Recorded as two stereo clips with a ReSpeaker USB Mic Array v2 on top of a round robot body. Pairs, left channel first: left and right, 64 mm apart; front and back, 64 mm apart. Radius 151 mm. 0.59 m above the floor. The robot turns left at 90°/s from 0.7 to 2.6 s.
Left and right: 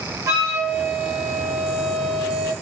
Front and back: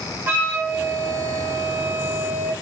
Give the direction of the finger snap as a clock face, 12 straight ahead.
No finger snap in this recording.